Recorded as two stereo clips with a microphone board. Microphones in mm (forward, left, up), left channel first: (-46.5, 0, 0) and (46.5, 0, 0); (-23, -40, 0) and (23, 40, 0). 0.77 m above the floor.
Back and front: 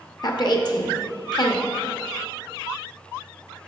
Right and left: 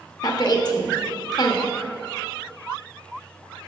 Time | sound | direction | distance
0.2 | a woman speaking | 150° right | 0.9 m